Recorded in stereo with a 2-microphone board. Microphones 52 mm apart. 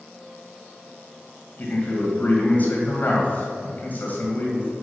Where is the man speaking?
35° left (ahead or behind), 2 m.